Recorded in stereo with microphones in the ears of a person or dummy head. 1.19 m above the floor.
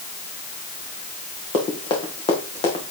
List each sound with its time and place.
1.5 s running footsteps: 25° left (ahead or behind), 3 m; by 2.9 s 30° left (ahead or behind), 4 m